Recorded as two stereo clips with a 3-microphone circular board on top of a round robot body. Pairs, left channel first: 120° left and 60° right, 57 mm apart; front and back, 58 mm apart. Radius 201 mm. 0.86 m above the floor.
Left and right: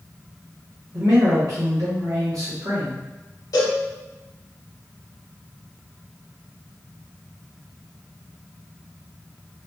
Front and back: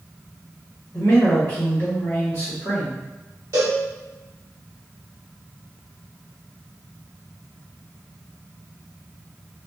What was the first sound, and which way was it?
A man speaking, 45° right.